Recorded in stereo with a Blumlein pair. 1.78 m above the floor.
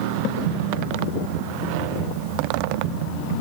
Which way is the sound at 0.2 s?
50° right.